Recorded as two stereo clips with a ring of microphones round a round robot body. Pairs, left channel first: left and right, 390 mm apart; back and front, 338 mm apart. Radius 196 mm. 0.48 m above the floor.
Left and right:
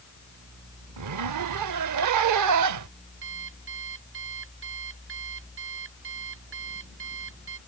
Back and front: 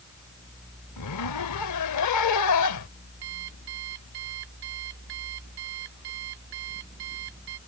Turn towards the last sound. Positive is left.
turn(degrees=-30)